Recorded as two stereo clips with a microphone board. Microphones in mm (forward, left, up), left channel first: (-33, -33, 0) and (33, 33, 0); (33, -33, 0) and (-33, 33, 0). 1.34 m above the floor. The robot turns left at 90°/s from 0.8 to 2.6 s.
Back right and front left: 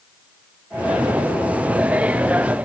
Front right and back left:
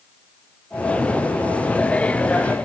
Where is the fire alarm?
I don't hear a fire alarm.